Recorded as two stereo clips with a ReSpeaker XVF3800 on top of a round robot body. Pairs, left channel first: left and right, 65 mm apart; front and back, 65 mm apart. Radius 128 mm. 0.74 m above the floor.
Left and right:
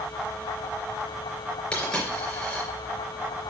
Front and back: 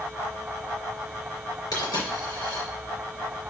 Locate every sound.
1.7 s a dropped coin: 15° left, 4 m